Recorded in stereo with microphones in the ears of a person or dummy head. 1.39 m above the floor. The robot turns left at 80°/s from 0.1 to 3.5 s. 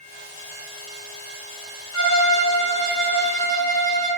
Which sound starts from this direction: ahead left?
A violin, at 1.9 s.